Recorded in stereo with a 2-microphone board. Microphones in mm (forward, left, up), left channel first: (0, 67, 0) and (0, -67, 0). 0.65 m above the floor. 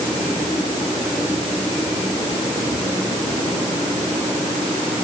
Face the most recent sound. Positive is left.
No sound to turn to.